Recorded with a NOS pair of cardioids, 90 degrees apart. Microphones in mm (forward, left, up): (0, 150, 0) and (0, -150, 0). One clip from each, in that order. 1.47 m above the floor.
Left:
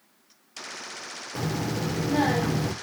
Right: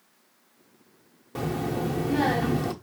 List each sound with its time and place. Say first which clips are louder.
1.4 s a child speaking: right 2 dB; 5° right, 0.6 m